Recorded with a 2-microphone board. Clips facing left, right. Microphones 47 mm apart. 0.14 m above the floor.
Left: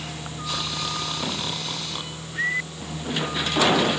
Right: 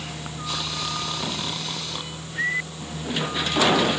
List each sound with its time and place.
Only background noise.